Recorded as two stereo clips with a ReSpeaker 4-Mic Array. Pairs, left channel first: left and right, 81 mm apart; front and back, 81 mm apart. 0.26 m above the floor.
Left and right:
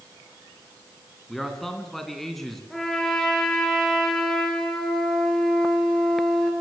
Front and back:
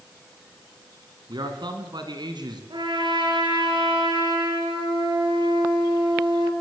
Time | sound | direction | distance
1.3 | a man speaking | 175° left | 3.5 m
2.7 | a trumpet | 175° left | 5.5 m